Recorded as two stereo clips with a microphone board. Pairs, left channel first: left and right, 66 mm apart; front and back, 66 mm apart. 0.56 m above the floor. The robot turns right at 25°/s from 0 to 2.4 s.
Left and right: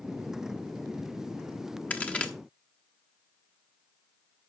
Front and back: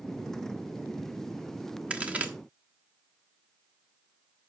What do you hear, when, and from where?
1.9 s a crack: 130° left, 1.1 m; by 2.3 s 140° left, 1.1 m